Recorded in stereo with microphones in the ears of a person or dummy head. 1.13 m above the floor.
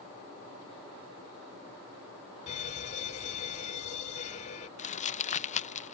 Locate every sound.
2.5 s a fire alarm: 40° left (ahead or behind)
4.8 s crumpling: 40° left (ahead or behind)